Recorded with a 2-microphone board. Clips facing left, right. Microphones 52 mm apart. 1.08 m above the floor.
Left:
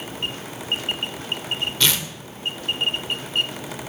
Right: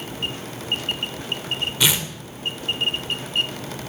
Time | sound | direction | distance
1.8 | tearing paper | 15° right (ahead or behind) | 2 m